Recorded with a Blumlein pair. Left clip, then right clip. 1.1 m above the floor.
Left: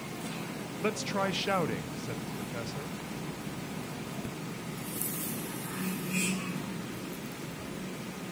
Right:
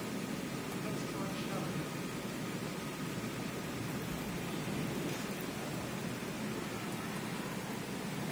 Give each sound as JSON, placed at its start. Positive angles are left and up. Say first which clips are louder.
{"t": 0.8, "sound": "a man speaking", "louder": "left 13 dB", "azimuth_deg": 35, "distance_m": 0.6}